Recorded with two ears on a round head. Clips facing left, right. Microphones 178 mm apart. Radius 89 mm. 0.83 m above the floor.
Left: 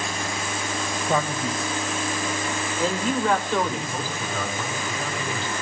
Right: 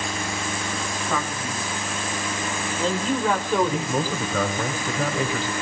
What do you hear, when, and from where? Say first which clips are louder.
1.1 s a man speaking: left 5 dB; 25° left (ahead or behind), 4 m; by 4.6 s 25° right (ahead or behind), 3 m
3.6 s a man speaking: right 5 dB; 70° right (ahead or behind), 3.5 m